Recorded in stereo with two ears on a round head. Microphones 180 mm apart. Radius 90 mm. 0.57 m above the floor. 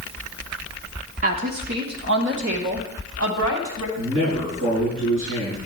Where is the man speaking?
75° right (ahead or behind), 6 m.